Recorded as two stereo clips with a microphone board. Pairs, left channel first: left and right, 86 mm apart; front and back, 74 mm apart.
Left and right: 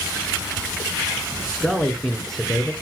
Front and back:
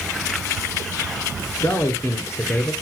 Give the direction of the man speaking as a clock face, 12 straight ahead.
12 o'clock.